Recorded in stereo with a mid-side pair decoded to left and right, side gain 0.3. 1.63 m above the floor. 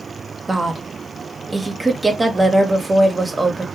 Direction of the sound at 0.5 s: 30° right.